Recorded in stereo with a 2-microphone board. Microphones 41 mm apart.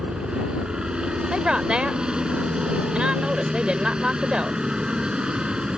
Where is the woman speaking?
25° right (ahead or behind).